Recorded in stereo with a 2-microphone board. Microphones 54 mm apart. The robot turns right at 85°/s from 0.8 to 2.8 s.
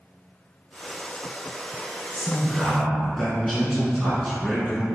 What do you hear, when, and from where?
2.1 s a man speaking: 20° right (ahead or behind), 1.1 m; by 5.0 s 5° left (ahead or behind), 1.1 m